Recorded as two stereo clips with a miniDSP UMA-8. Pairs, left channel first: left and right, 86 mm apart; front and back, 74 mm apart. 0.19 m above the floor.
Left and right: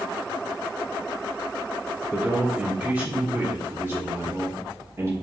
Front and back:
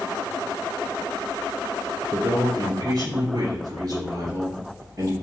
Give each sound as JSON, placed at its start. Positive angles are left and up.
{"t": 2.1, "sound": "a man speaking", "azimuth_deg": -165, "distance_m": 3.0}